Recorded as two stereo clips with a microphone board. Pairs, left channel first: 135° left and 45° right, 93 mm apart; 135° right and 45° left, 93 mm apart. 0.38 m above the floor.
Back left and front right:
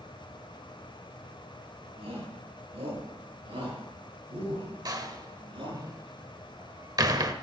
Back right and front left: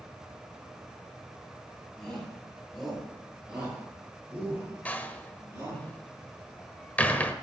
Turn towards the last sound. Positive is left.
turn(degrees=-70)